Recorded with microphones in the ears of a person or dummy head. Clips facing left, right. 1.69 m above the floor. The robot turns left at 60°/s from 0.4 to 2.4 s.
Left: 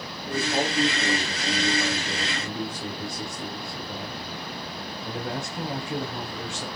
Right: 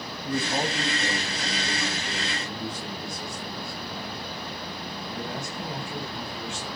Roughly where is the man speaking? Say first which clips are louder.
Left 1 dB; behind right.